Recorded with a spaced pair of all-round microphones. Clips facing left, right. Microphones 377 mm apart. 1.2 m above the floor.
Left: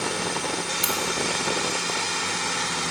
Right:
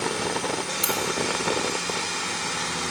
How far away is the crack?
About 0.6 m.